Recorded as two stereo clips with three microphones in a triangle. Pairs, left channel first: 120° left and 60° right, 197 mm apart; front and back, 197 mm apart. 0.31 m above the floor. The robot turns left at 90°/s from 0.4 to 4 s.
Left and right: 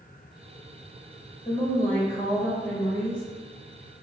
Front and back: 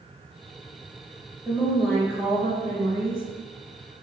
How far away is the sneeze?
I don't hear a sneeze.